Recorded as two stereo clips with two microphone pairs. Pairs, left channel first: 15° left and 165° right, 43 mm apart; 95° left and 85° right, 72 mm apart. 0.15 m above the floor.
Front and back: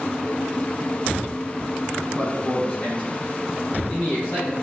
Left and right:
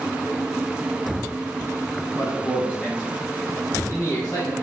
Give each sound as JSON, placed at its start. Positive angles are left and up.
{"t": 2.2, "sound": "a man speaking", "azimuth_deg": 95, "distance_m": 1.1}